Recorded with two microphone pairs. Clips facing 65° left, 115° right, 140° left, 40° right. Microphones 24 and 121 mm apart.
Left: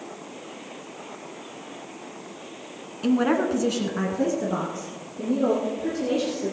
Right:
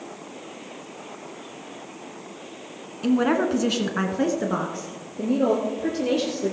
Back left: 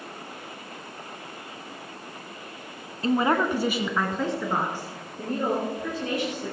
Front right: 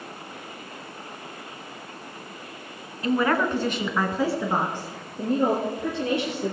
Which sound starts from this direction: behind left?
A woman speaking, at 3.0 s.